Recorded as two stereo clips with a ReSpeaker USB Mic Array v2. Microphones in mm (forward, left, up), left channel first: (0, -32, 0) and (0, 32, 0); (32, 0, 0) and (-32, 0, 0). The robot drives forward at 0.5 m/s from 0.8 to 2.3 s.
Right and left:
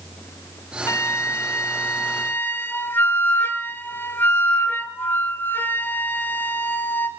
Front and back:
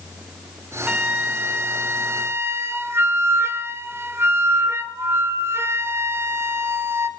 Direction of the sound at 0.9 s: 110° right.